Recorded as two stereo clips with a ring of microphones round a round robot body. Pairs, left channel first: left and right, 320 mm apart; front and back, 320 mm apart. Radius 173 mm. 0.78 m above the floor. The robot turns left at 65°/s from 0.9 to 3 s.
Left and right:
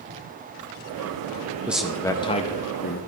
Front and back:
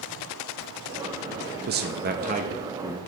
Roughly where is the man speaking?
Behind.